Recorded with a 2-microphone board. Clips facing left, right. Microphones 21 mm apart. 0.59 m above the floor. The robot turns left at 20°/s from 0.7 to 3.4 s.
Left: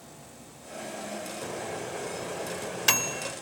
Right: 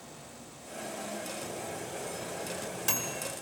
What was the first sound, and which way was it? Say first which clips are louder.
A microwave: left 4 dB; 70° left (ahead or behind).